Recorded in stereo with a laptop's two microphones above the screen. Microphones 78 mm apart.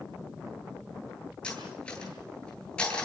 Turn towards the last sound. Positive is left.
turn(degrees=15)  # may be behind; listen again after turning